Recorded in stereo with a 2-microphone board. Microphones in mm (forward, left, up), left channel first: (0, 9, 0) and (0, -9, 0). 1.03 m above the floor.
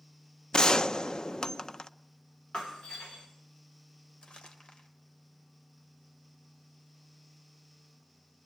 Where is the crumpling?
80° left, 2.5 m.